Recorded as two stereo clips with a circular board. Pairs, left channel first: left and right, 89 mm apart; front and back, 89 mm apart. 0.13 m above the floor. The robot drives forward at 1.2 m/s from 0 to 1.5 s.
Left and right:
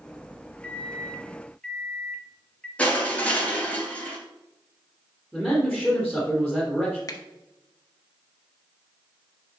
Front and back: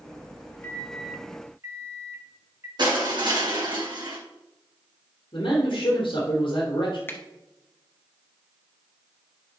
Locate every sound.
0.6 s a microwave: 25° left, 1.1 m; by 2.7 s 160° left, 1.2 m
2.8 s crushing: 160° left, 3 m
5.3 s a man speaking: 5° right, 3.5 m
7.1 s a finger snap: 60° left, 1.4 m